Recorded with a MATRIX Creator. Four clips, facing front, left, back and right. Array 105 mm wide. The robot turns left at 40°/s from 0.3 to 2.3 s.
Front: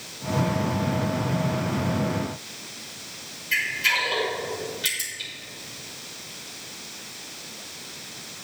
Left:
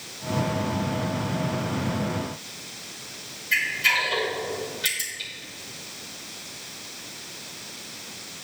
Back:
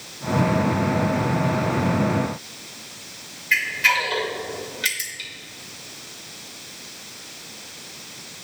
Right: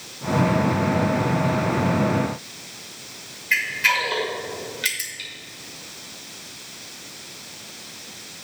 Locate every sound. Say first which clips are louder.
3.5 s a camera shutter: right 3 dB, back 5 dB; 135° right, 2 m